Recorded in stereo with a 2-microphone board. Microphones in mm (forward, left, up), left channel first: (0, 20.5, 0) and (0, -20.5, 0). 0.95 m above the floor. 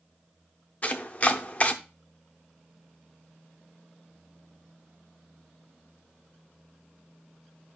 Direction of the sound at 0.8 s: 35° left (ahead or behind).